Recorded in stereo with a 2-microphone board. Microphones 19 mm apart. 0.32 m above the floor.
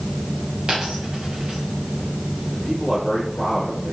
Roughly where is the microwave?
No microwave in this recording.